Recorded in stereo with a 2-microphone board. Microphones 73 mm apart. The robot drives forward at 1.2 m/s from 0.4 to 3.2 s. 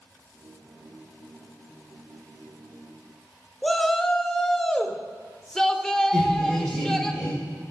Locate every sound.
3.6 s a shout: 5° left (ahead or behind), 1.0 m
6.1 s laughter: 5° right (ahead or behind), 4 m